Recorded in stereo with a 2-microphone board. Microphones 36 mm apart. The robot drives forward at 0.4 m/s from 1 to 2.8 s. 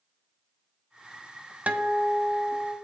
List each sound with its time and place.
1.7 s a guitar: 40° right (ahead or behind), 0.8 m